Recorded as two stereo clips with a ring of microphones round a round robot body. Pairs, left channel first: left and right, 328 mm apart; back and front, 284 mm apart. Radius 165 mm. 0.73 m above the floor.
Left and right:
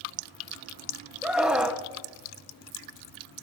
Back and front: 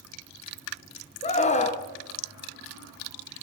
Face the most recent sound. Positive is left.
turn(degrees=-175)